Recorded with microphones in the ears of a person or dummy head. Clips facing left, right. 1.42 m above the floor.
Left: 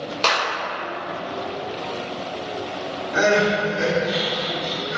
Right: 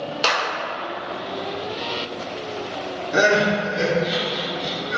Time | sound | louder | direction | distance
0.2 | a clap | left 1 dB | 10° right (ahead or behind) | 1.9 m
3.1 | crying | even | 50° right (ahead or behind) | 1.2 m